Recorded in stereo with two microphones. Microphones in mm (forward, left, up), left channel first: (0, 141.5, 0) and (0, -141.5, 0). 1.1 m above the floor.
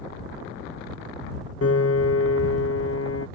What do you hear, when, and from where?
1.6 s a piano: 55° left (ahead or behind)